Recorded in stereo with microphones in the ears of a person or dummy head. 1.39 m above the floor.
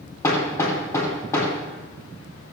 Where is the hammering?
20° left (ahead or behind), 3 m.